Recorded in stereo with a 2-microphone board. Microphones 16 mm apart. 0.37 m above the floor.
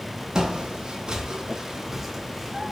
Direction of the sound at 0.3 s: 55° right (ahead or behind).